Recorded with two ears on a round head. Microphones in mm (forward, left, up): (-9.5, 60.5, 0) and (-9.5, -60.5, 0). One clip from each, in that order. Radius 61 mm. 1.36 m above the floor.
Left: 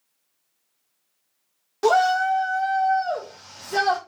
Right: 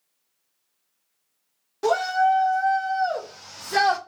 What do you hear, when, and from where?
1.8 s a shout: 25° left (ahead or behind), 1.0 m; by 4.0 s 55° right (ahead or behind), 1.0 m